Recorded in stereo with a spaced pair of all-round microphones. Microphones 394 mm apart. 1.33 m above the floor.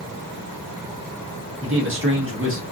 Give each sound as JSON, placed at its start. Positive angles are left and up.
{"t": 1.6, "sound": "a man speaking", "side_deg": -30, "distance_m": 1.0}